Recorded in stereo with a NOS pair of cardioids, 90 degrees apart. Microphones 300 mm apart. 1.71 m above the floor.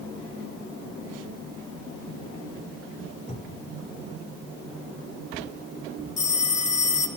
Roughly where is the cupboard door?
Ahead.